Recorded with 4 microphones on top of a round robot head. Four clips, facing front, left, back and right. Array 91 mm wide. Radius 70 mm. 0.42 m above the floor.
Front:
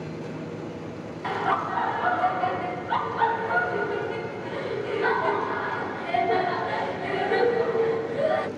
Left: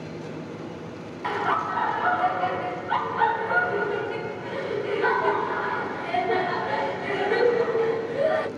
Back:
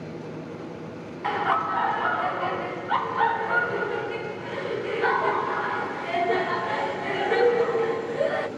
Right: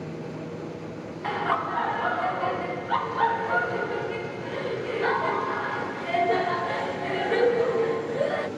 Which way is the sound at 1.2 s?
155° left.